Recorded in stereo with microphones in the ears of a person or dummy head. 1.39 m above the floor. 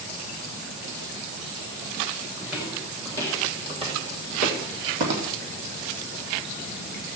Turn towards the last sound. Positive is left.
turn(degrees=-65)  # may be behind; listen again after turning